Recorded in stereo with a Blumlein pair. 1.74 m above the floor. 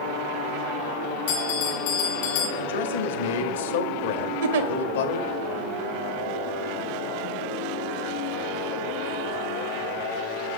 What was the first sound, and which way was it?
A bell, 50° left.